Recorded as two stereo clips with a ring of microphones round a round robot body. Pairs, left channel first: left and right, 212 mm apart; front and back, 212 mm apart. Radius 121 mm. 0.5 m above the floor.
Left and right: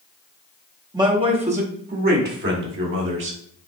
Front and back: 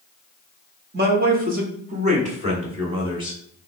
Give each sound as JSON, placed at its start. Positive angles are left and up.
{"t": 0.9, "sound": "a man speaking", "azimuth_deg": -155, "distance_m": 1.5}